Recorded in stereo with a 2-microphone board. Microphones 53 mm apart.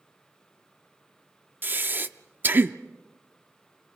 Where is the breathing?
35° right (ahead or behind), 0.6 m.